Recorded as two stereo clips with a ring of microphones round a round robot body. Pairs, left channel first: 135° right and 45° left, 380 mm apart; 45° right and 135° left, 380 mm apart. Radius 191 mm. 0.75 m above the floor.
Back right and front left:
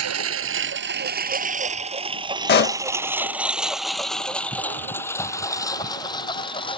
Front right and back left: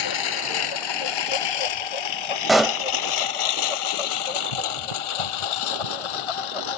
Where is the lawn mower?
10° right; by 6.8 s 60° right.